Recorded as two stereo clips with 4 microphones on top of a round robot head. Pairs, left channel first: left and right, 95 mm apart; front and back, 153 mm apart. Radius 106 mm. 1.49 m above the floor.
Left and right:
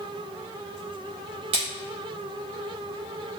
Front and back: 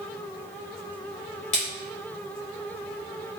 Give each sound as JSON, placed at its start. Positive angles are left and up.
{"t": 1.5, "sound": "a splash", "azimuth_deg": -55, "distance_m": 0.5}